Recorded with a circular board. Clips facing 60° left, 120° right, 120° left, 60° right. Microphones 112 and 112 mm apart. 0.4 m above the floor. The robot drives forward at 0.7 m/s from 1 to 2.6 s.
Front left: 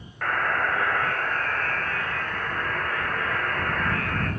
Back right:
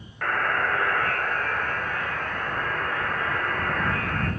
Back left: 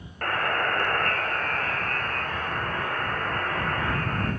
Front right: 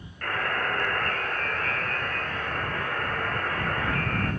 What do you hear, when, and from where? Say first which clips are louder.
0.2 s a buzzer: even, back left 3 dB; 150° left, 1.4 m; by 4.3 s 165° left, 2.5 m